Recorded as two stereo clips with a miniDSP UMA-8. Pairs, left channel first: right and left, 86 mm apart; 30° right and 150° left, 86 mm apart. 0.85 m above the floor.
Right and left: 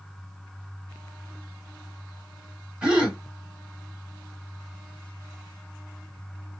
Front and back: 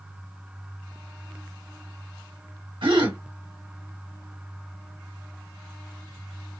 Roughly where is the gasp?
Behind.